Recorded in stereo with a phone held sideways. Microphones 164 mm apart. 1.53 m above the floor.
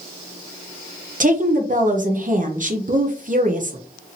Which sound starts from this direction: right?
A woman speaking, at 1.2 s.